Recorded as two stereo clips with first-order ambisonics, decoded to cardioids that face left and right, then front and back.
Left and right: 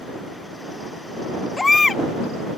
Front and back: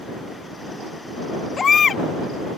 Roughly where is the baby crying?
Ahead left.